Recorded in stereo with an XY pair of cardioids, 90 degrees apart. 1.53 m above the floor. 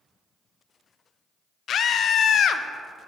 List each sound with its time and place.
1.7 s a scream: 65° left, 0.5 m